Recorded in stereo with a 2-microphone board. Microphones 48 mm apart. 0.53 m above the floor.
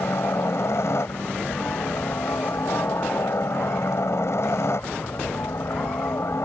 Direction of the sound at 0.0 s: 65° left (ahead or behind).